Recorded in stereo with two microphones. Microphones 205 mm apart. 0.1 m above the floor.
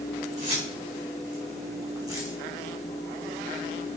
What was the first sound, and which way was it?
Keys jangling, 30° right (ahead or behind).